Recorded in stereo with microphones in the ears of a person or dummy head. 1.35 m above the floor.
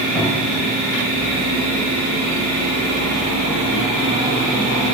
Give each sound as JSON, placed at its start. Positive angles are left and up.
{"t": 0.1, "sound": "a cupboard door", "side_deg": 10, "distance_m": 3.5}